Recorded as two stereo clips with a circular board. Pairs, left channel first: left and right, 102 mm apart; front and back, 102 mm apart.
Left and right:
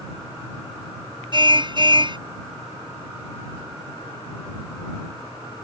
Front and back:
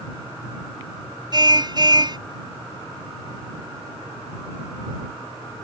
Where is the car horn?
135° right.